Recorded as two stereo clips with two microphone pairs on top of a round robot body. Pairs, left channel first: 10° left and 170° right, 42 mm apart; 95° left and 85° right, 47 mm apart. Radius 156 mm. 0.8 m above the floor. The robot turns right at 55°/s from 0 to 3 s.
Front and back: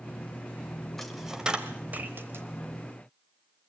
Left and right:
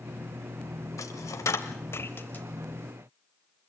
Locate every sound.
1.0 s a dropped coin: 85° left, 0.7 m; by 2.5 s 165° left, 0.7 m